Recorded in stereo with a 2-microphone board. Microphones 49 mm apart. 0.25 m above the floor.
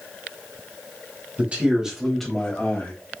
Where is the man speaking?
35° right (ahead or behind), 1.6 m; by 2.9 s 40° left (ahead or behind), 1.6 m.